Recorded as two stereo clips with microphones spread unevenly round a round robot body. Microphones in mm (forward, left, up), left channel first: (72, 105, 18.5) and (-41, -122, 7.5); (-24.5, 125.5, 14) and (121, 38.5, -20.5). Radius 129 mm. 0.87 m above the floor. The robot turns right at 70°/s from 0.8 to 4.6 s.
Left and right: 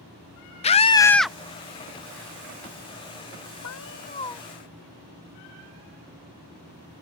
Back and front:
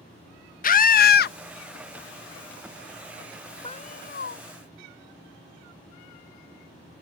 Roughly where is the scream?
Behind left.